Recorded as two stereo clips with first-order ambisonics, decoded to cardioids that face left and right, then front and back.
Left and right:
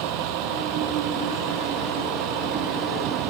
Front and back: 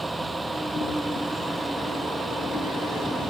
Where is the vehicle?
100° right; by 3.3 s 105° right.